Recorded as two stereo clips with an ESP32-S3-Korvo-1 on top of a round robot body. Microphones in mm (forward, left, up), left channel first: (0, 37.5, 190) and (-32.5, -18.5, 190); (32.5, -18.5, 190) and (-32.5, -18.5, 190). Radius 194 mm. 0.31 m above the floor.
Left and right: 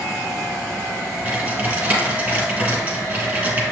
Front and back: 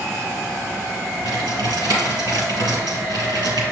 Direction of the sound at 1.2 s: Straight behind.